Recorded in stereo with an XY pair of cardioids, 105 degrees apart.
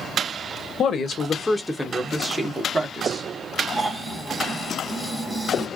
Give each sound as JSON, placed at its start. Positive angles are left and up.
{"t": 0.8, "sound": "a man speaking", "azimuth_deg": 60, "distance_m": 0.7}
{"t": 3.7, "sound": "snoring", "azimuth_deg": -15, "distance_m": 1.1}